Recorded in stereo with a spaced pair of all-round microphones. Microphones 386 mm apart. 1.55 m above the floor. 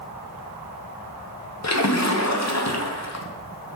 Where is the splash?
45° left (ahead or behind), 0.7 m.